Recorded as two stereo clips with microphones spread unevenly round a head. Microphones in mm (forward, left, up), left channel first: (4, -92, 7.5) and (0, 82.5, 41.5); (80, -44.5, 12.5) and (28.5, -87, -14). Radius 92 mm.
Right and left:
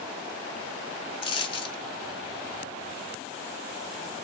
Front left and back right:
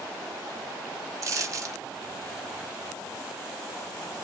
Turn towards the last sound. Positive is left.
turn(degrees=-135)